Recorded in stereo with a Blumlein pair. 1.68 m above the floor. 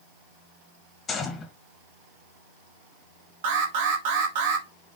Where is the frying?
I don't hear frying.